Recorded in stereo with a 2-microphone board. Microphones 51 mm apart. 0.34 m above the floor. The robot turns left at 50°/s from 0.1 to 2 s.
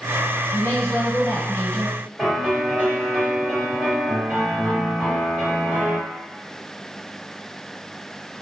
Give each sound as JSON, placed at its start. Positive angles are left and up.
{"t": 0.5, "sound": "a woman speaking", "azimuth_deg": 105, "distance_m": 1.4}
{"t": 2.2, "sound": "a piano", "side_deg": -35, "distance_m": 1.6}